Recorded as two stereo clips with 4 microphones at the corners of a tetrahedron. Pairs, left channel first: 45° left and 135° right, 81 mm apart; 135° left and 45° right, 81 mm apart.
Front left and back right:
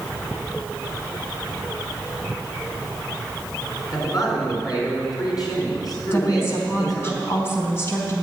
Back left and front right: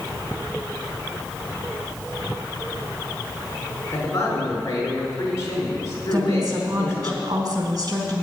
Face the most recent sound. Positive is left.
turn(degrees=-10)